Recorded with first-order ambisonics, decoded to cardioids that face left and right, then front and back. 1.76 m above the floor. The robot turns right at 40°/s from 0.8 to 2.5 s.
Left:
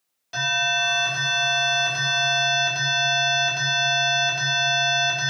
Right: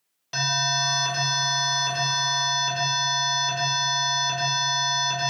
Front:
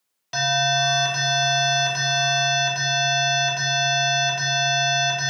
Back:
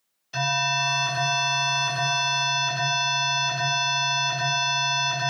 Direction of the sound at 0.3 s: 10° right.